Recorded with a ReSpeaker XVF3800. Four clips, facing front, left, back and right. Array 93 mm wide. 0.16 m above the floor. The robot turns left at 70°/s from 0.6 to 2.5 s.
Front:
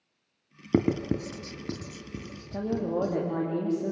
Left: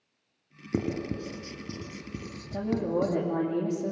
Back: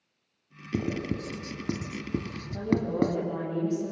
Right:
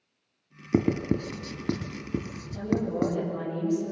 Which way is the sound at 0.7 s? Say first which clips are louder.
Right 6 dB, front 5 dB; 30° right.